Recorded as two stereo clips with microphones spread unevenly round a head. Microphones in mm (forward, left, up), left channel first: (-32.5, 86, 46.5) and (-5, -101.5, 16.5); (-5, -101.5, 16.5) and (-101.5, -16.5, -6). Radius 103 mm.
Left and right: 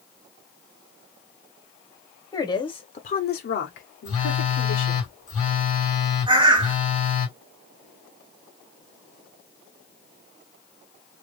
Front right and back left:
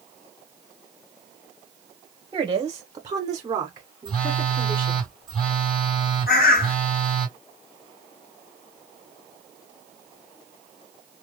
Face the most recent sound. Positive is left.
turn(degrees=-20)